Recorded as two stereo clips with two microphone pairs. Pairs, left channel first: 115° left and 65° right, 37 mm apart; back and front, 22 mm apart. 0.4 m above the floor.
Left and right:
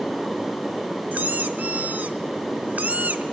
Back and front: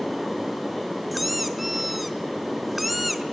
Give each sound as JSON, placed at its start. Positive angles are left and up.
{"t": 1.1, "sound": "a squeak", "azimuth_deg": -80, "distance_m": 0.8}